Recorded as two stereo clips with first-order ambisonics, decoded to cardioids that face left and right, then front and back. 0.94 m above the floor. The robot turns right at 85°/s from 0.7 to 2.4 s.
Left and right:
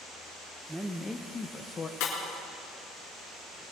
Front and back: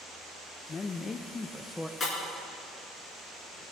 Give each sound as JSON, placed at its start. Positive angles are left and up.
{"t": 0.7, "sound": "a man speaking", "azimuth_deg": -10, "distance_m": 0.6}
{"t": 2.0, "sound": "breaking glass", "azimuth_deg": 75, "distance_m": 5.0}